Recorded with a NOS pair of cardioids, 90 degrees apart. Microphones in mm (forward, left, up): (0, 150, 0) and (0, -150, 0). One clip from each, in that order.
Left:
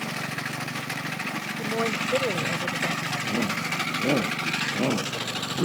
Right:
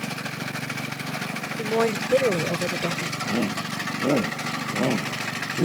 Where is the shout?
15° right.